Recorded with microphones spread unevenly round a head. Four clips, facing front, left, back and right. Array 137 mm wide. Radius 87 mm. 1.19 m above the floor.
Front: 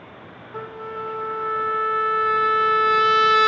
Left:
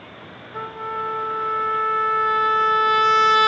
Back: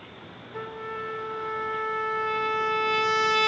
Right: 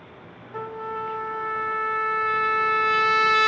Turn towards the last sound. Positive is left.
turn(degrees=-80)